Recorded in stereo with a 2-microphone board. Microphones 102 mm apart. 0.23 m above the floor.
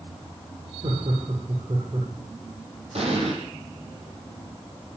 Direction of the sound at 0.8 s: 65° right (ahead or behind).